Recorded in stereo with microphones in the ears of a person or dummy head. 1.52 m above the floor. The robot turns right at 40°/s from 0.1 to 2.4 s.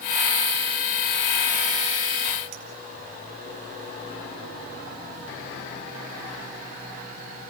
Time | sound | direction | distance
2.5 | a clink | 65° right (ahead or behind) | 2.5 m